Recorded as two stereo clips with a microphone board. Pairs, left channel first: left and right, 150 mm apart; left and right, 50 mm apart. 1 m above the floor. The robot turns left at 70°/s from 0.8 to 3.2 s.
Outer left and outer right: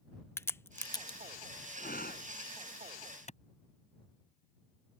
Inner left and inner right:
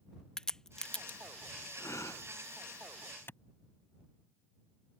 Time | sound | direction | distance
0.4 | a crack | 15° left (ahead or behind) | ?
1.8 | breathing | 110° left | ?
3.3 | a clap | 50° left (ahead or behind) | ?